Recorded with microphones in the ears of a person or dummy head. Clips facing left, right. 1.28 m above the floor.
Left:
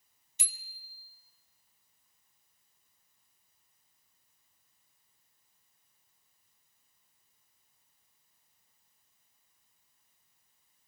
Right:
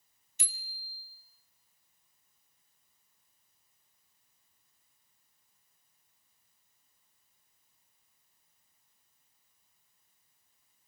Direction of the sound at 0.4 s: 85° left.